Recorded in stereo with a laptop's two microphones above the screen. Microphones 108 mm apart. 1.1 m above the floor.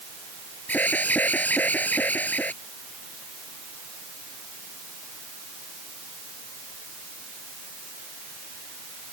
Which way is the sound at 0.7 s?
15° left (ahead or behind).